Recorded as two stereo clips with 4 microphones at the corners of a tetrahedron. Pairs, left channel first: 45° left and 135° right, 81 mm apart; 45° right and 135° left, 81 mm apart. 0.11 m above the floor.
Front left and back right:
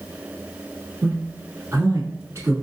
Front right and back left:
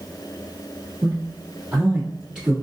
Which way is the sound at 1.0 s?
150° right.